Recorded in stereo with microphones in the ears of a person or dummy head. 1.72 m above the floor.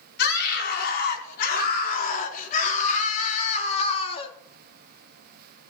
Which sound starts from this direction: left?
A scream, at 0.2 s.